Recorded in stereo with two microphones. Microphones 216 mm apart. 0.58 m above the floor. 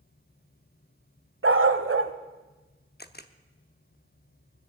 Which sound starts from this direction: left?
A camera shutter, at 3.0 s.